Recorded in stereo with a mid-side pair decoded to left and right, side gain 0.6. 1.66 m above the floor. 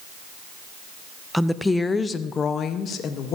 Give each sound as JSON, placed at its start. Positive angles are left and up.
{"t": 1.3, "sound": "a woman speaking", "azimuth_deg": 0, "distance_m": 0.7}